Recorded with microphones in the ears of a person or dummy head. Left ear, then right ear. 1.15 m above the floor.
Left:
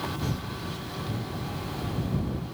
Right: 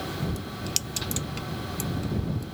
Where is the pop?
I don't hear a pop.